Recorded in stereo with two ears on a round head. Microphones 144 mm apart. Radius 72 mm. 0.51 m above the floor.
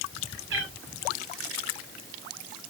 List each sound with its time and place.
0.5 s a cat meowing: 80° right, 3.5 m